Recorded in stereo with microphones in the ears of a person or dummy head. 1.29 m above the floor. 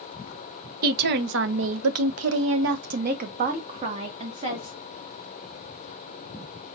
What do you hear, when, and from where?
0.8 s a woman speaking: 50° right (ahead or behind), 1.0 m; by 4.8 s 35° right (ahead or behind), 1.8 m